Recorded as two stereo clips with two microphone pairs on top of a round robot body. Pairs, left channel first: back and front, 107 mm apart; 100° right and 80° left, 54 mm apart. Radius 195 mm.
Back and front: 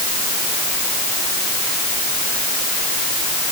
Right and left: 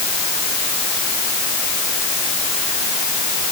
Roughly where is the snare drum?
I don't hear a snare drum.